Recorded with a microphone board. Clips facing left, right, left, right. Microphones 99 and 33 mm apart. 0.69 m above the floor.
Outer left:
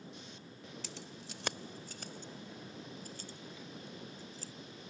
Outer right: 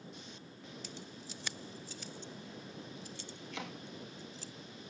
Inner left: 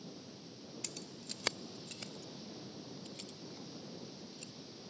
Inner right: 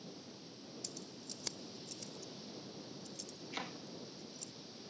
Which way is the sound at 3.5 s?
80° right.